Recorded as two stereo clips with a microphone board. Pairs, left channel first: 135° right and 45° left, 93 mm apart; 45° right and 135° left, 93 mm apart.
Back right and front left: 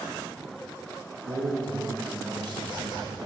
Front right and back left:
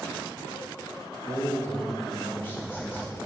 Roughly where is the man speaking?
Ahead.